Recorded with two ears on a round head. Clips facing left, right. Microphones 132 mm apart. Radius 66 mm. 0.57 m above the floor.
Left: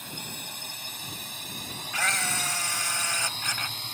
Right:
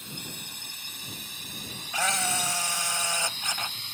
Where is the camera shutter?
15° right (ahead or behind).